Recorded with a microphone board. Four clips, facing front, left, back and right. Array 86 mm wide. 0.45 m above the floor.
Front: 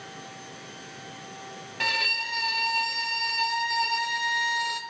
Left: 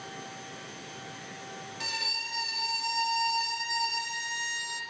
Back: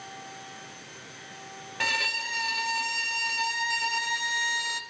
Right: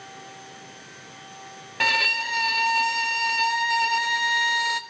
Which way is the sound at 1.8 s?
95° right.